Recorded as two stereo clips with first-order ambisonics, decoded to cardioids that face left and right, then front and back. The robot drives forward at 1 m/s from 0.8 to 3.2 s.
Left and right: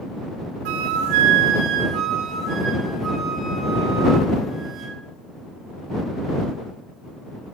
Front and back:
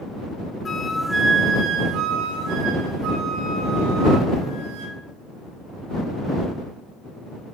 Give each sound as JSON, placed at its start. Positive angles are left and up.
{"t": 0.7, "sound": "a flute", "azimuth_deg": -75, "distance_m": 0.9}